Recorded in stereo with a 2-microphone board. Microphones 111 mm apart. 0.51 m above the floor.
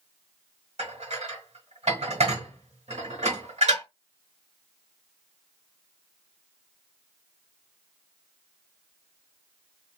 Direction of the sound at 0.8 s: 75° right (ahead or behind).